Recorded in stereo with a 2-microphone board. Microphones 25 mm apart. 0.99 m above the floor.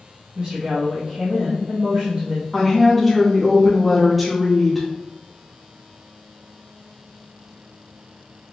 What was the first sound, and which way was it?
A woman speaking, 40° right (ahead or behind).